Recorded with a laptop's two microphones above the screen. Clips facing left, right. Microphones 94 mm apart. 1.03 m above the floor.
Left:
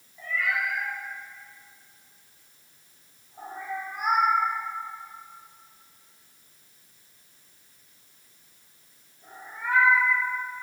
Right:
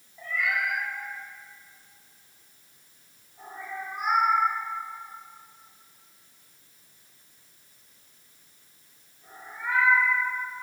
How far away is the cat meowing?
About 2 m.